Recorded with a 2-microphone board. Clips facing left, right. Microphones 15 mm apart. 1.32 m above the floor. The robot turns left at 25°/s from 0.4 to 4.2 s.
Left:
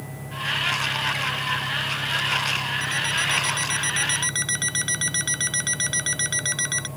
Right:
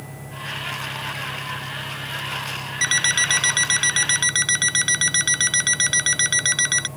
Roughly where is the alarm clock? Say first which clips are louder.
Right 9 dB; behind right.